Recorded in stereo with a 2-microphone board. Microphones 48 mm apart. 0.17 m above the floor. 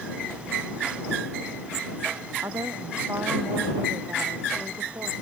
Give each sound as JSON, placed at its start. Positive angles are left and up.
{"t": 2.4, "sound": "a woman speaking", "side_deg": -75}